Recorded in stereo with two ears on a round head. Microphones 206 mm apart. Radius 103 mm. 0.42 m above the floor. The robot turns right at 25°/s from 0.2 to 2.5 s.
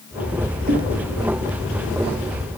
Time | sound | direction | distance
0.7 | knocking | 40° right (ahead or behind) | 6 m